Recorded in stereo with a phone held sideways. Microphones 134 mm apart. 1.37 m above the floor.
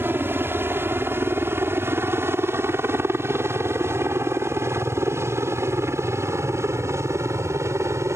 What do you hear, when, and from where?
0.0 s a helicopter: 15° right (ahead or behind); by 8.2 s 20° right (ahead or behind)